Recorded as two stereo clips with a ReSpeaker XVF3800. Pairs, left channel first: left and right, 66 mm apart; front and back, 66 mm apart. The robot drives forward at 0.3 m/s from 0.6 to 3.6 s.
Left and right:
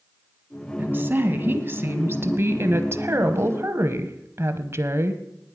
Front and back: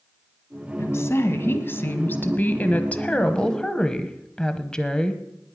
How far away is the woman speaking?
About 1.6 m.